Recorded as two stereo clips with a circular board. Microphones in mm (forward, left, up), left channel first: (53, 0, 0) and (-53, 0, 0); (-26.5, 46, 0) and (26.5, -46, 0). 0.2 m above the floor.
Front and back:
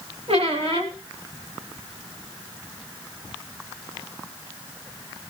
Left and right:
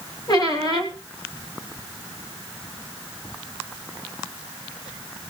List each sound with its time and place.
0.3 s a squeak: 165° left, 2.5 m